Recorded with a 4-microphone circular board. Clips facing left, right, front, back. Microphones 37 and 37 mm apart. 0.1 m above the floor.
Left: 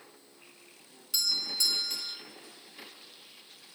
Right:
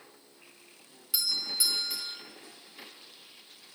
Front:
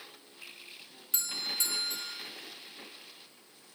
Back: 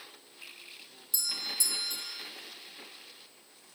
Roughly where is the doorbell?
Ahead.